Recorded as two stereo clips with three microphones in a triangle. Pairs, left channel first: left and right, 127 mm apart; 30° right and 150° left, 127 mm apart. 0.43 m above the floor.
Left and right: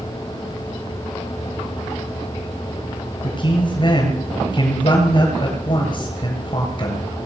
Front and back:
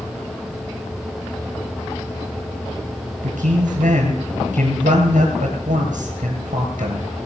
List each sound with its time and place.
3.2 s a man speaking: 140° left, 7.5 m